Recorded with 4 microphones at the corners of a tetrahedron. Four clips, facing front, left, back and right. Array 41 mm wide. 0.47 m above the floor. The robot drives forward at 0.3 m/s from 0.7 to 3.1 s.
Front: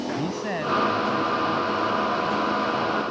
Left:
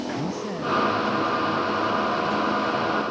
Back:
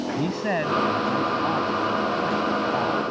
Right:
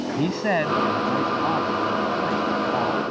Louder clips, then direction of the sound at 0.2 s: Right 6 dB, back 3 dB; 100° right.